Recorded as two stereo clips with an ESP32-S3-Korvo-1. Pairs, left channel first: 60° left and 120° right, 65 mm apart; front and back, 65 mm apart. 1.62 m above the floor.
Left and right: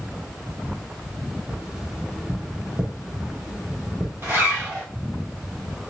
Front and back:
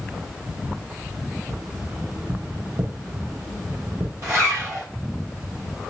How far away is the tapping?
About 1.1 m.